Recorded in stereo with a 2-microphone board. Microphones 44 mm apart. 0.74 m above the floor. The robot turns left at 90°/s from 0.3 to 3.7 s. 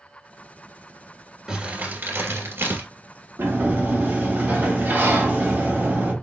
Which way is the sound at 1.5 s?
10° right.